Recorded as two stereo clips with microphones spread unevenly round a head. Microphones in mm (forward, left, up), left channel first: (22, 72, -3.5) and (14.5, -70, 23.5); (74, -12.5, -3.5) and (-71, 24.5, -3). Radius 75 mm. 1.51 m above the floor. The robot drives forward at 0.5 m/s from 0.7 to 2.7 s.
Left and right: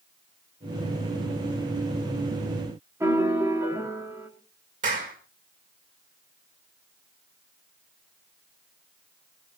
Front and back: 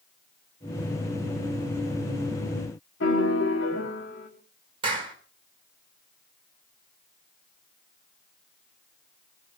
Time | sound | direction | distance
3.0 | a piano | 20° right | 4 m
4.8 | a clap | 135° right | 5 m